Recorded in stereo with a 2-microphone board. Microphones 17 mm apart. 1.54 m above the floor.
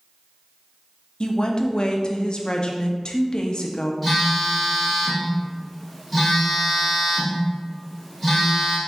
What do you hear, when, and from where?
1.2 s a woman speaking: 55° left (ahead or behind), 0.6 m
4.0 s a phone buzzing: centre (ahead or behind), 1.9 m